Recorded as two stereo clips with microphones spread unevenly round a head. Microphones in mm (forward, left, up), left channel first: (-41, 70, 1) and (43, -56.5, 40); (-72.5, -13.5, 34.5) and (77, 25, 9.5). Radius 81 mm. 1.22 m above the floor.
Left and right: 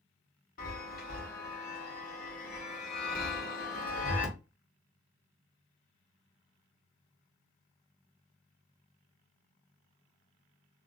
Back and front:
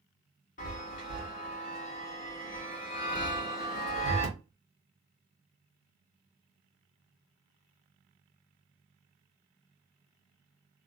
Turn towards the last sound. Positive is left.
turn(degrees=155)